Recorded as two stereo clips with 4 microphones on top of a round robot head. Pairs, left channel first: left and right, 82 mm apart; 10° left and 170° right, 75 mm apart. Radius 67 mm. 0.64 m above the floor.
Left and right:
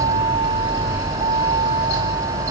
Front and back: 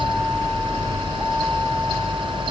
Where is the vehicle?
75° right; by 2.5 s 80° right.